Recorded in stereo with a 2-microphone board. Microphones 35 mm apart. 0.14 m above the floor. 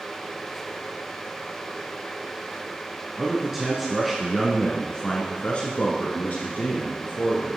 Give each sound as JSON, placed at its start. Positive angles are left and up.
{"t": 3.2, "sound": "a man speaking", "side_deg": -20, "distance_m": 1.6}